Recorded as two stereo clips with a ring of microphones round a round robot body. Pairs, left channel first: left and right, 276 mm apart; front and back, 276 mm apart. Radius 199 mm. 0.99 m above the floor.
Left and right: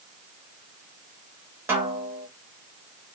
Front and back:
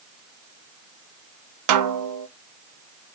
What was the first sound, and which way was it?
A snare drum, 175° right.